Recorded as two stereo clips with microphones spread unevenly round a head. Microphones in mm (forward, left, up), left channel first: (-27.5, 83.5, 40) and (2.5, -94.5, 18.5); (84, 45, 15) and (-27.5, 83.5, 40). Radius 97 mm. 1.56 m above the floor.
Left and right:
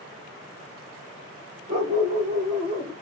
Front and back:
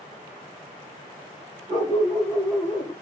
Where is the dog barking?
130° right, 1.6 m; by 2.9 s 15° right, 1.1 m.